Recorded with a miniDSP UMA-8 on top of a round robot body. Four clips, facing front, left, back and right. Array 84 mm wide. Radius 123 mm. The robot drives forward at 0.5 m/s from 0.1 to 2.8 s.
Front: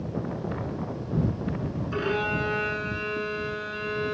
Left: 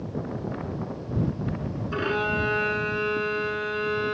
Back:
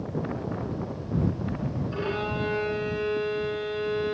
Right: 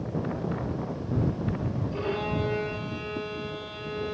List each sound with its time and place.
1.9 s a violin: 65° left, 9.5 m; by 4.2 s 70° left, 9.5 m